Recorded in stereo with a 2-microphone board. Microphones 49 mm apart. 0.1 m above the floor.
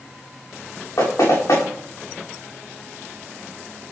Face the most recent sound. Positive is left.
turn(degrees=65)  # may be behind; listen again after turning